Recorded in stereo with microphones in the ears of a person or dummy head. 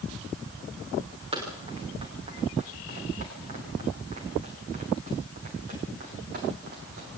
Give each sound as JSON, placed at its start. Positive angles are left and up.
{"t": 1.3, "sound": "running footsteps", "side_deg": -35, "distance_m": 9.0}